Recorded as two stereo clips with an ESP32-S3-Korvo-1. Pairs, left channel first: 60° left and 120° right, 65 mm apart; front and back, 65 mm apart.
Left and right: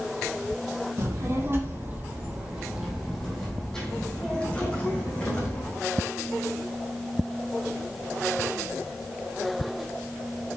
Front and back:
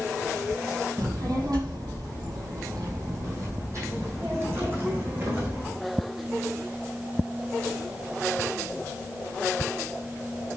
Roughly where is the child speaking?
Behind.